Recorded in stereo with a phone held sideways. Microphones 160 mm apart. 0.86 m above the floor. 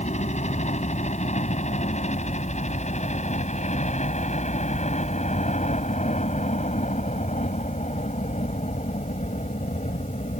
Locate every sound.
0.0 s a helicopter: 45° left (ahead or behind)